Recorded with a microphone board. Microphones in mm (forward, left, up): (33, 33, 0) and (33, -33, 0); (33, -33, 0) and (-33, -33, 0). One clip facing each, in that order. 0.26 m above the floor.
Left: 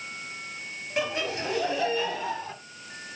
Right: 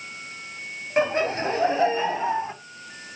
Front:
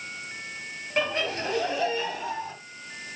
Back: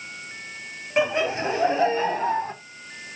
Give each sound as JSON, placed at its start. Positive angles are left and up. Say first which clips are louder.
{"t": 1.0, "sound": "laughter", "louder": "right 7 dB, back 5 dB", "azimuth_deg": -110, "distance_m": 1.6}